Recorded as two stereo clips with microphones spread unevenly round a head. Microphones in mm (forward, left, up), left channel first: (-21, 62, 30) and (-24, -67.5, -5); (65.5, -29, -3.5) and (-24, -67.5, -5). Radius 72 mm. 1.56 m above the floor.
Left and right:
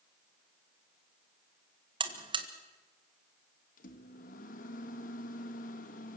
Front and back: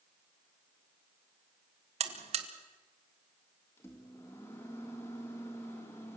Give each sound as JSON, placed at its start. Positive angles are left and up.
{"t": 2.0, "sound": "a buzzer", "azimuth_deg": -145, "distance_m": 1.8}
{"t": 3.8, "sound": "a microwave", "azimuth_deg": 95, "distance_m": 1.8}